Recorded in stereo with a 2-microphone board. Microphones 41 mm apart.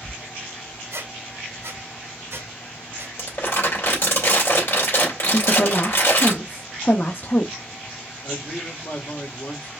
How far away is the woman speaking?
About 0.7 m.